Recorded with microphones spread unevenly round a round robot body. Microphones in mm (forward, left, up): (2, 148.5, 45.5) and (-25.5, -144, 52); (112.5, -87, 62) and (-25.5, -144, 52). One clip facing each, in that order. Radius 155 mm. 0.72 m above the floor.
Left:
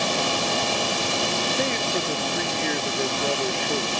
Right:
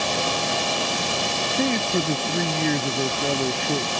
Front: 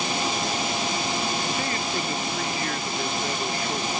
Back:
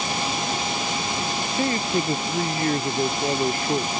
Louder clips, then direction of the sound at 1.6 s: Right 8 dB, back 5 dB; 100° right.